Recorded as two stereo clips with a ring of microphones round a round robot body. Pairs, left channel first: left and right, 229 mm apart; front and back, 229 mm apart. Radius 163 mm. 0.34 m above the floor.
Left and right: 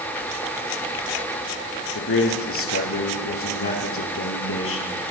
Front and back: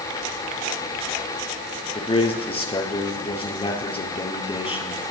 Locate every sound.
1.9 s a man speaking: 65° left, 6.5 m